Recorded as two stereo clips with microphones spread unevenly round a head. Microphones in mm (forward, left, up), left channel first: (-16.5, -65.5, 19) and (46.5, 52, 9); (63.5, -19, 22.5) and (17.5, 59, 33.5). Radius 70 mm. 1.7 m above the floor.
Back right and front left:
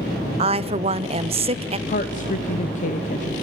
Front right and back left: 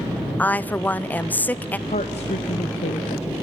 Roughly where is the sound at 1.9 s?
Right.